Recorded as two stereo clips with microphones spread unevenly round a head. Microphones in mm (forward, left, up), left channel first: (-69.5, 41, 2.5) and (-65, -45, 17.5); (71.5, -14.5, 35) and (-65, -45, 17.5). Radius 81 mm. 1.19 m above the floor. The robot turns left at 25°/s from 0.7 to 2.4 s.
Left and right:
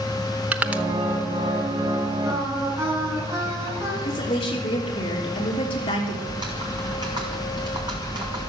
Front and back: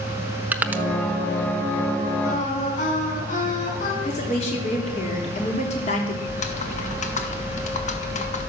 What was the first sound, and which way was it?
Crushing, 90° right.